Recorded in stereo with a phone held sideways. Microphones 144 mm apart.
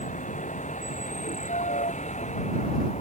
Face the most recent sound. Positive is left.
turn(degrees=50)  # may be behind; listen again after turning